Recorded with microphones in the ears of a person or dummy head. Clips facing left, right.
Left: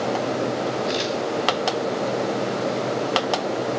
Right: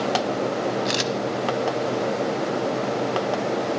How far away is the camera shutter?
About 0.6 m.